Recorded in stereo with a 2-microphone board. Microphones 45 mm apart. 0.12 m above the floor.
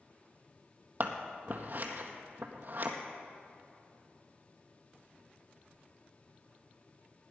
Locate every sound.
1.0 s scissors: 45° right (ahead or behind), 1.2 m